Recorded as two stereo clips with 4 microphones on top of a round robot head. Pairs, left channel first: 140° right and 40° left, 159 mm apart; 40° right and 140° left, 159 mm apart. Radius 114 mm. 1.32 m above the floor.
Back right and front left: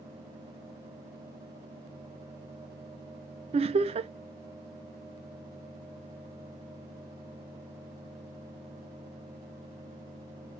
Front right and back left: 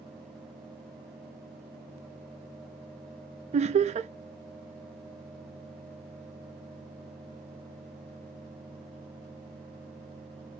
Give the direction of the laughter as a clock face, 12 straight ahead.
9 o'clock.